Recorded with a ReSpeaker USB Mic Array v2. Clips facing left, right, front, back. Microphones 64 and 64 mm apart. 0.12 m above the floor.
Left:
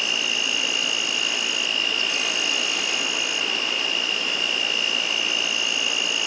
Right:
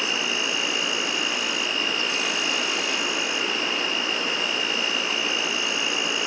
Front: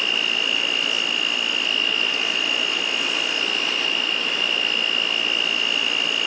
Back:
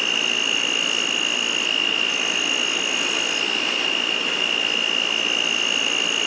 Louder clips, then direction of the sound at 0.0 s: Even, even; 105° right.